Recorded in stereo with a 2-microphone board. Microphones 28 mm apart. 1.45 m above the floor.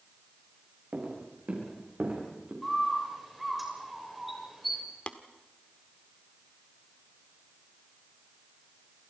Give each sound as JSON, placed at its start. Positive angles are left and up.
{"t": 0.9, "sound": "footsteps", "side_deg": -45, "distance_m": 9.0}
{"t": 2.6, "sound": "a bird", "side_deg": 0, "distance_m": 6.5}
{"t": 5.1, "sound": "tapping", "side_deg": 50, "distance_m": 1.4}